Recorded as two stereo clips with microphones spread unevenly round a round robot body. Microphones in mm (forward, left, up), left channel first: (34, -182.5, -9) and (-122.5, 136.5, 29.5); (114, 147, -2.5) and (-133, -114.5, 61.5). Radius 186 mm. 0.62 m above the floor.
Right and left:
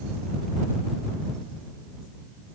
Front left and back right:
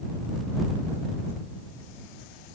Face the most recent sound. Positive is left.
No sound to turn to.